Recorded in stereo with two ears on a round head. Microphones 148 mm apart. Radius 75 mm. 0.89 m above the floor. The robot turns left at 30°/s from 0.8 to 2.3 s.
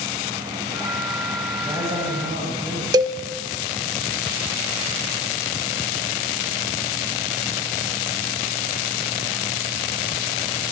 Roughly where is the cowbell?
Right.